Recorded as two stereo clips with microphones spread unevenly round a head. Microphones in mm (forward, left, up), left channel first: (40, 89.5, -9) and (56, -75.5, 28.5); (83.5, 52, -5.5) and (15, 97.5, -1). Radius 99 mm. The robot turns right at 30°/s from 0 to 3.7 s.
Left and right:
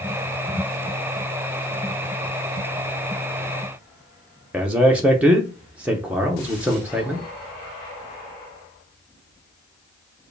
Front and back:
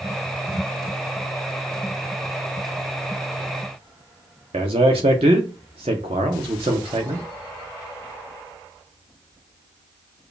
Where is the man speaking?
170° right, 0.7 m.